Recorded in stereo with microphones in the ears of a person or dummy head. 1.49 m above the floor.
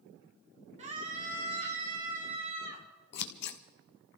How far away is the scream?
About 2 m.